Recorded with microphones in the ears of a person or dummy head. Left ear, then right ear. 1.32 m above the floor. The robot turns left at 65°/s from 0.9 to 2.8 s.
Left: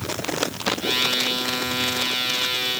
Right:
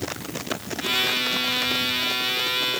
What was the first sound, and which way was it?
Only background noise.